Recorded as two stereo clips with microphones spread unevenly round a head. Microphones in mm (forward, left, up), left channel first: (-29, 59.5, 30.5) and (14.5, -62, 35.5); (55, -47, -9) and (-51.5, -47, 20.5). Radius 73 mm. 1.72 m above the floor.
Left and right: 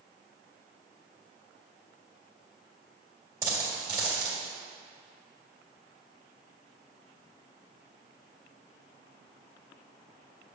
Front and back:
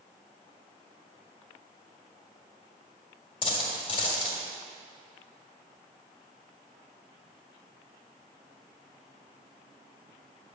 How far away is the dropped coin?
About 1.6 m.